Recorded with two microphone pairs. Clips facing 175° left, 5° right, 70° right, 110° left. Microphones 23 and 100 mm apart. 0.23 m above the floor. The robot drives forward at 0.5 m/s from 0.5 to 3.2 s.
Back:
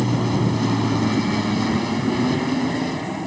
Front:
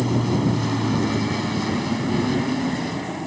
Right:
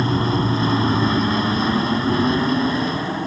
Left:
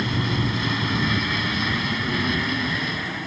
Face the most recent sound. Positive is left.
turn(degrees=-100)